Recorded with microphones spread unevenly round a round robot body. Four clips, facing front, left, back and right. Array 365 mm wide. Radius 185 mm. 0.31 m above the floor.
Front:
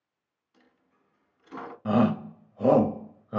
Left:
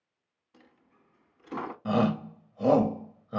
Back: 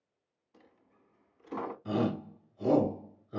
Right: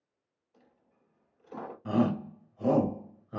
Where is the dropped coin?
115° left, 0.9 m.